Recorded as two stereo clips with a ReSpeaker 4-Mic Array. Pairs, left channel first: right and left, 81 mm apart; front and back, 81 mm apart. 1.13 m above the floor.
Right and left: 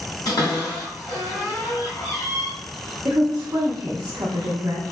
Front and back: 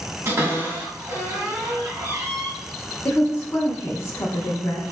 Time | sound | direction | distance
0.2 | a cupboard door | 120° right | 1.8 m
3.0 | a woman speaking | 55° left | 0.7 m